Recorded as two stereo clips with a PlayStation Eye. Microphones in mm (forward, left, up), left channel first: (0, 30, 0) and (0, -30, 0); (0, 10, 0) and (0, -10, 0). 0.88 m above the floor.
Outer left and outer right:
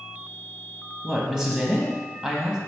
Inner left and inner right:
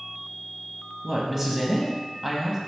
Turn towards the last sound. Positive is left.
turn(degrees=-10)  # may be behind; listen again after turning